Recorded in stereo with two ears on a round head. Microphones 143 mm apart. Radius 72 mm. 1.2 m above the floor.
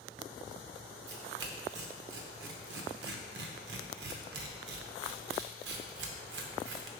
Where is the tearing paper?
80° right, 0.8 m.